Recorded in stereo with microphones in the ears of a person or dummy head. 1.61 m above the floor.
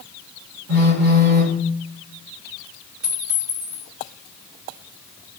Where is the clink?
50° right (ahead or behind), 1.7 m.